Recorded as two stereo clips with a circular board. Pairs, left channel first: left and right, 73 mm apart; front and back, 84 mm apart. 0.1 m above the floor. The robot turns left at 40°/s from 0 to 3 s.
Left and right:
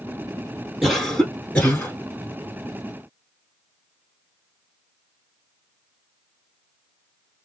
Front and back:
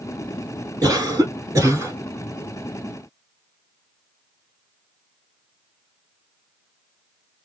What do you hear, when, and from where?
0.8 s a cough: 170° right, 1.3 m; by 2.0 s 145° left, 1.3 m